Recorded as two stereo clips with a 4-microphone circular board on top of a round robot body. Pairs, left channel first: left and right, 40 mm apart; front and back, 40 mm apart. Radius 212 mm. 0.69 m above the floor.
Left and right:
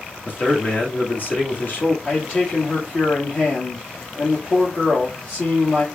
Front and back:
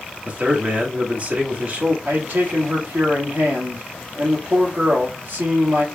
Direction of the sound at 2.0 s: 140° left.